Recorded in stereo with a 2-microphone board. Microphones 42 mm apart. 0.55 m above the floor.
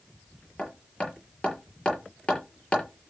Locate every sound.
0.6 s hammering: 25° left (ahead or behind), 5.5 m